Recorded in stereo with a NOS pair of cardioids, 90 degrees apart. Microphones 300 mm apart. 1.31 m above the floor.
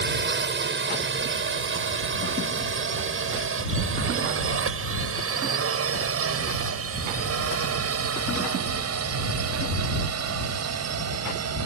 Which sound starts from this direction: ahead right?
A drone, at 0.0 s.